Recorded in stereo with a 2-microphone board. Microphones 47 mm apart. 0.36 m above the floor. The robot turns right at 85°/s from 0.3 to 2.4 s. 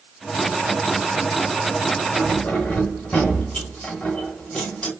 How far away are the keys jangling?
About 1.1 m.